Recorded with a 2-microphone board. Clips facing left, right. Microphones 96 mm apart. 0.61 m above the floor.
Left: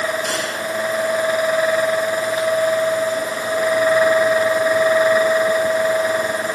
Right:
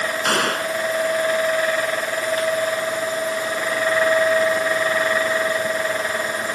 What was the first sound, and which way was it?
A gunshot, 60° right (ahead or behind).